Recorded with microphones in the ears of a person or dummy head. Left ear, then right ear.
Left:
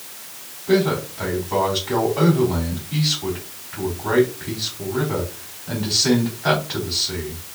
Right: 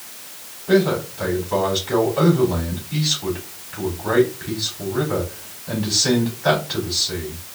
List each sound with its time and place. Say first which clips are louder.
0.7 s a man speaking: right 1 dB; 5° left (ahead or behind), 4 m